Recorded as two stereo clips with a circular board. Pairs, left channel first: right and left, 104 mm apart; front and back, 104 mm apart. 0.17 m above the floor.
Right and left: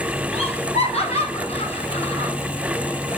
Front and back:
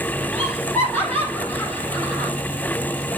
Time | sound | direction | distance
0.3 | laughter | 80° right | 4 m